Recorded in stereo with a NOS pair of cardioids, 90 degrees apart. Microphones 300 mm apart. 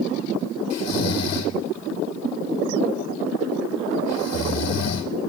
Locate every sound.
0.7 s snoring: 55° left, 2 m